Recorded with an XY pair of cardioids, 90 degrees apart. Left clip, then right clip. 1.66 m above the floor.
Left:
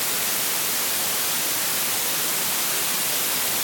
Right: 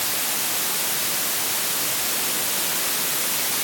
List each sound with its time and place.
Only background noise.